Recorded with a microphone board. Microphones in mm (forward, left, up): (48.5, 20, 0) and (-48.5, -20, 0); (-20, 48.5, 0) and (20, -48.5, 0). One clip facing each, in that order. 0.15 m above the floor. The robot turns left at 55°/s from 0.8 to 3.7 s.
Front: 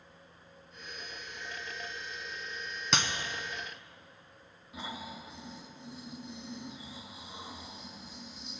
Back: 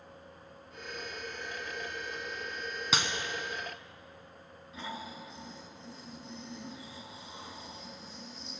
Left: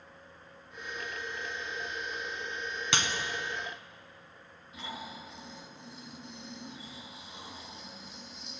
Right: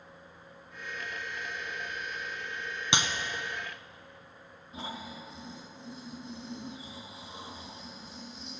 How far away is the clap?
About 1.0 m.